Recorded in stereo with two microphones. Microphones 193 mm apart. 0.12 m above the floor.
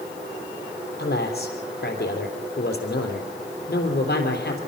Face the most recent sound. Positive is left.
turn(degrees=55)  # may be behind; listen again after turning